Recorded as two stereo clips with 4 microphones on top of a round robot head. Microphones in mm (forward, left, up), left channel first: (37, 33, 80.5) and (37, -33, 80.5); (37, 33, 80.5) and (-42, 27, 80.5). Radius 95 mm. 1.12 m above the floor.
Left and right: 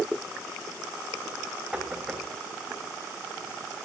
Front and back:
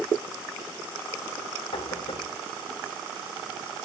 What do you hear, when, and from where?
1.7 s knocking: 15° right, 4.5 m